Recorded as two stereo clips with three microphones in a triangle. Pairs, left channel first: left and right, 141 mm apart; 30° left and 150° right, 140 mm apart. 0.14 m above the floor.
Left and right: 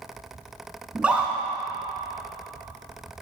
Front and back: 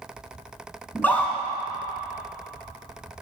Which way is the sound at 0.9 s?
25° right.